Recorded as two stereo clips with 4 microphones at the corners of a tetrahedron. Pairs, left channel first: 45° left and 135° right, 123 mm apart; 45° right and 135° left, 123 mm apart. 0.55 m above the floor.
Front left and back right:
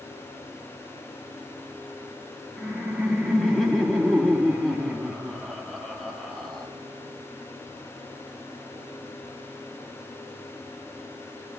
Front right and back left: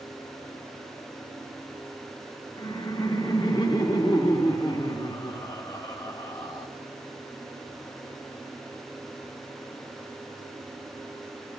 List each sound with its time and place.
2.6 s laughter: 40° right, 1.3 m